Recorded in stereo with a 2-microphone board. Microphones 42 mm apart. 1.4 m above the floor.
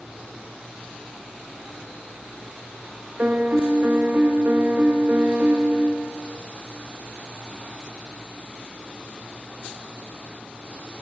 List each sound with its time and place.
3.2 s a piano: 55° right (ahead or behind), 1.1 m